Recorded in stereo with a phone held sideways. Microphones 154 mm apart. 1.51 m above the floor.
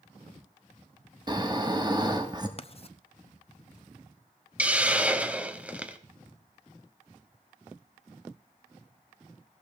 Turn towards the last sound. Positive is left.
turn(degrees=-10)  # may be behind; listen again after turning